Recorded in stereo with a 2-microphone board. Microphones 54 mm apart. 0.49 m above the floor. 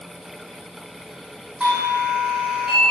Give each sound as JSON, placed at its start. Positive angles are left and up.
{"t": 1.6, "sound": "a doorbell", "side_deg": -15, "distance_m": 1.1}